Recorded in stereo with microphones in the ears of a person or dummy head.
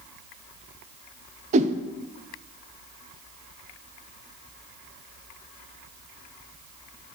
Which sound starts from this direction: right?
A whoosh, at 1.5 s.